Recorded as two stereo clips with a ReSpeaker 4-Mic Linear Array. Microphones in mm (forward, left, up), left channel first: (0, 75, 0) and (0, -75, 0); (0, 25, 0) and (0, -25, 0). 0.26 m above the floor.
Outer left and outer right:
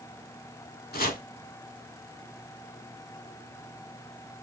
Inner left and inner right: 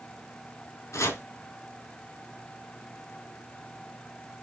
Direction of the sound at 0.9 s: 75° left (ahead or behind).